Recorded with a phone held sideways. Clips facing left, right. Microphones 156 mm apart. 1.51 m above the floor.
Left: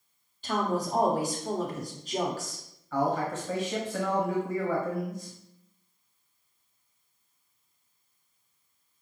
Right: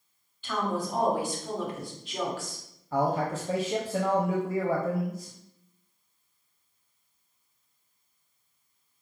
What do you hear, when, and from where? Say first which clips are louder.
0.4 s a woman speaking: left 2 dB; 35° left (ahead or behind), 1.1 m
2.9 s a man speaking: right 1 dB; 30° right (ahead or behind), 0.6 m